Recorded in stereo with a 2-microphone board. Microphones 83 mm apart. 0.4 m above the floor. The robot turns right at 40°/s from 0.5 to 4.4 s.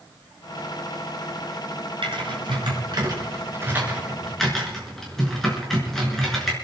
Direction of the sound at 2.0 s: 80° right.